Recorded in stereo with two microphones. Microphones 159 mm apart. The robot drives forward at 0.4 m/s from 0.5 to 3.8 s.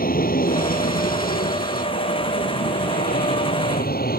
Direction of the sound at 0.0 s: 65° left (ahead or behind).